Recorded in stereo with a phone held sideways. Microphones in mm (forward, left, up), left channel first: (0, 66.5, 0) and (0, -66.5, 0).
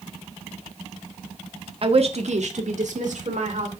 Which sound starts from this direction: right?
A woman speaking, at 1.8 s.